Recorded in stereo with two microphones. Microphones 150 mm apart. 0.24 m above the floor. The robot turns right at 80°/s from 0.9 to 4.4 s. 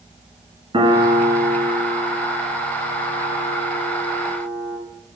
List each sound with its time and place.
0.7 s a piano: 40° right (ahead or behind), 1.1 m; by 4.8 s 35° left (ahead or behind), 1.1 m